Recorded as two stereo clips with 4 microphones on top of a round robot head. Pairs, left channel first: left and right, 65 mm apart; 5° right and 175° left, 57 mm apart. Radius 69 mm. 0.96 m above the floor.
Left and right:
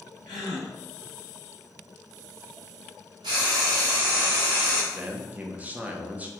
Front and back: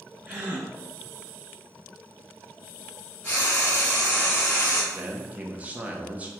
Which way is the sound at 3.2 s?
80° right.